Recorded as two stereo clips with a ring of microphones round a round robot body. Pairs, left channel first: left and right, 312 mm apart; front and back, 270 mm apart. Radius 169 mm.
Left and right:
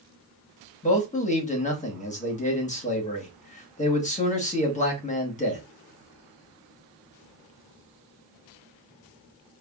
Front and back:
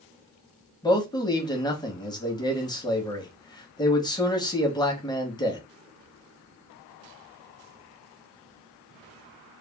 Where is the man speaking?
55° left, 1.1 m.